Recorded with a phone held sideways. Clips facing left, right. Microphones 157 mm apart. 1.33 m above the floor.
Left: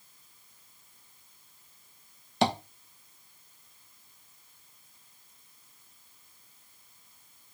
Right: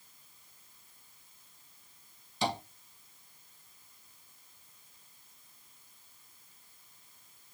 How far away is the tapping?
About 1.3 m.